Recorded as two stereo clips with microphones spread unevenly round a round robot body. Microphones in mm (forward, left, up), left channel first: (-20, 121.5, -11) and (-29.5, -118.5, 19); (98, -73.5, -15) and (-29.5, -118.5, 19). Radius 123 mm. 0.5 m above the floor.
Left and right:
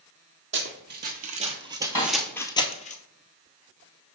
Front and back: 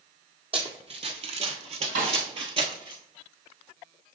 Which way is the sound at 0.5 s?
125° right.